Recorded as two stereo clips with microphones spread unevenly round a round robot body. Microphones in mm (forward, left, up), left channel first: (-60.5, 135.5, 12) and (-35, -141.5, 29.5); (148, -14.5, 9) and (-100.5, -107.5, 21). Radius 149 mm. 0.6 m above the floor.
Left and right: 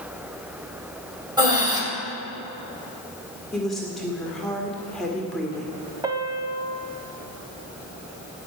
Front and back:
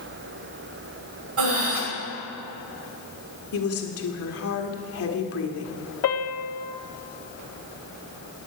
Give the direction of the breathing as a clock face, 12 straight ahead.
5 o'clock.